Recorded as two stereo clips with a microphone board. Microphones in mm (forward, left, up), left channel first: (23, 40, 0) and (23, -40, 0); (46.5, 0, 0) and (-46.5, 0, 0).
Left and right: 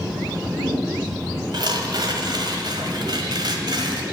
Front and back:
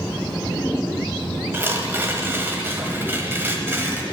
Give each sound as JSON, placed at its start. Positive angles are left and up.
{"t": 1.5, "sound": "tearing paper", "azimuth_deg": -115, "distance_m": 1.2}